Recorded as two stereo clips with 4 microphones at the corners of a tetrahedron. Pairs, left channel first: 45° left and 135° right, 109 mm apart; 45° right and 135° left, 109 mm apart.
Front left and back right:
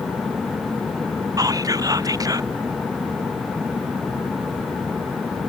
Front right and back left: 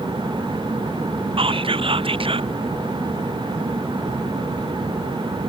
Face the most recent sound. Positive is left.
turn(degrees=170)